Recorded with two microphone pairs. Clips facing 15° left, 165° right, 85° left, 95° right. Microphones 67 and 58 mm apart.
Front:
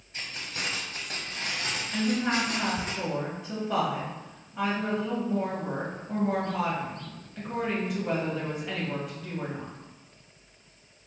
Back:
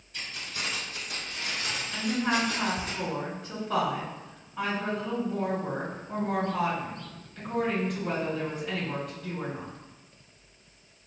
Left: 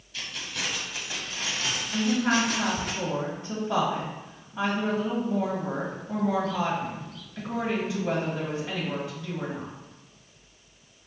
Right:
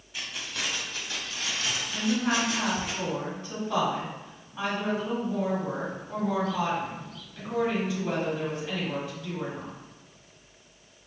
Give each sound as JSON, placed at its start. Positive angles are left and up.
{"t": 0.1, "sound": "keys jangling", "azimuth_deg": -35, "distance_m": 1.1}
{"t": 1.9, "sound": "a woman speaking", "azimuth_deg": 95, "distance_m": 1.4}